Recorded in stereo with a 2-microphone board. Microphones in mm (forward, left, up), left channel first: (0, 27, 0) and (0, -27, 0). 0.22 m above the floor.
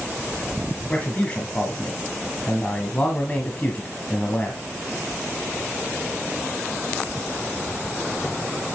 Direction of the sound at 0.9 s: 25° left (ahead or behind).